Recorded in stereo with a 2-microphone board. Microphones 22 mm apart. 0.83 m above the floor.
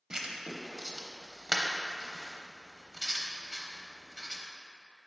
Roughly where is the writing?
Right.